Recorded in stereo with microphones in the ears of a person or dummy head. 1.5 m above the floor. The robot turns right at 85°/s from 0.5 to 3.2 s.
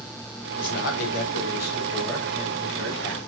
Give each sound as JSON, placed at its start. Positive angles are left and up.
{"t": 0.6, "sound": "a man speaking", "azimuth_deg": 40, "distance_m": 2.0}